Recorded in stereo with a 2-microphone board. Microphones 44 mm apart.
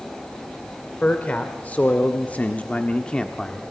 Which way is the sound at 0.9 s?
30° left (ahead or behind).